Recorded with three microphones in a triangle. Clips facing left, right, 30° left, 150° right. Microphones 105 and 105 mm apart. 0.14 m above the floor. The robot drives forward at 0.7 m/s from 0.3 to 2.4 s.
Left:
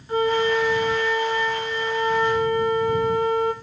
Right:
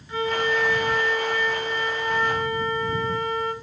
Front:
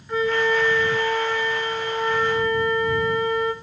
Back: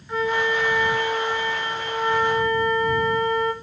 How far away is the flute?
About 1.1 m.